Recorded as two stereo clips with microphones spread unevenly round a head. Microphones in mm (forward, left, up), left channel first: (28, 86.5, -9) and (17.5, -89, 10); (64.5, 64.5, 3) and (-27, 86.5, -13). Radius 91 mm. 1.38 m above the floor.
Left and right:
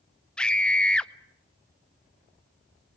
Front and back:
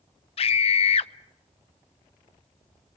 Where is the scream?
Straight ahead, 0.8 m.